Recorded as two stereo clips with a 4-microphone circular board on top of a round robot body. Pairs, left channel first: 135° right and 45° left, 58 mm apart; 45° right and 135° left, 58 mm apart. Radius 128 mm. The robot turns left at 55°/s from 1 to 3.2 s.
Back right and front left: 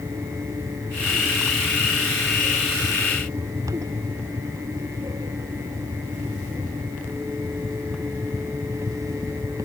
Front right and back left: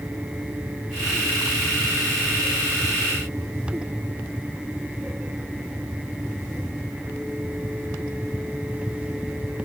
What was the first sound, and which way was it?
Only background noise.